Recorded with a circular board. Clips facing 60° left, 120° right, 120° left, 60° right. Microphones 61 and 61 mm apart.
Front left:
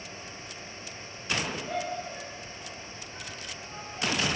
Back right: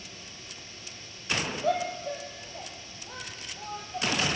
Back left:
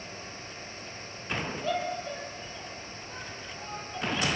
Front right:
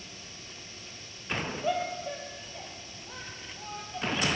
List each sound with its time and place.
1.6 s a shout: 135° right, 6 m; by 4.3 s 145° right, 5 m